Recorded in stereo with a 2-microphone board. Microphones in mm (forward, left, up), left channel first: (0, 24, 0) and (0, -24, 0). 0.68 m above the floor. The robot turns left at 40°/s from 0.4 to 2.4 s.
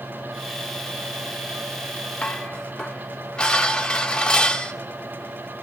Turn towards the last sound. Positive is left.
turn(degrees=20)  # may be behind; listen again after turning